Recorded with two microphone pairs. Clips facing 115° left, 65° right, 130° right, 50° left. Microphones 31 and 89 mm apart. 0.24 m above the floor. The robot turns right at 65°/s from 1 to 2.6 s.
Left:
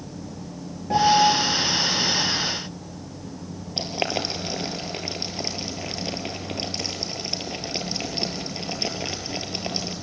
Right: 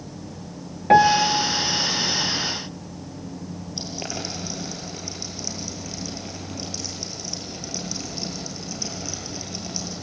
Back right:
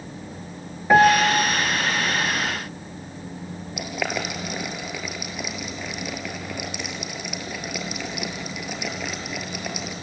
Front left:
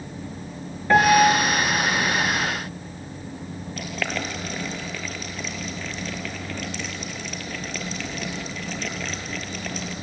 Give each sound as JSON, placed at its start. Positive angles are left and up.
{"t": 0.9, "sound": "a piano", "azimuth_deg": -50, "distance_m": 1.4}
{"t": 3.8, "sound": "boiling", "azimuth_deg": 155, "distance_m": 2.5}